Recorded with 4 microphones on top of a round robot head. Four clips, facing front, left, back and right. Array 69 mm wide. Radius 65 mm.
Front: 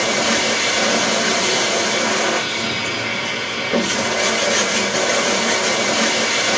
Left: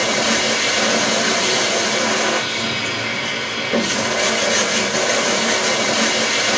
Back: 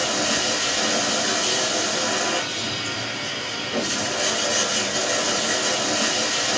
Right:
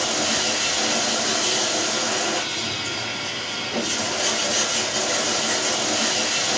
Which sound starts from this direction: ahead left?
Running water, at 0.0 s.